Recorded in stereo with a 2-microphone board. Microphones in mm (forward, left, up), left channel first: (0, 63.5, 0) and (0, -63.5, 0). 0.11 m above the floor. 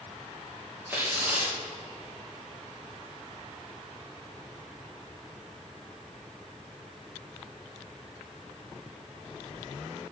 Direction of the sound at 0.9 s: 15° right (ahead or behind).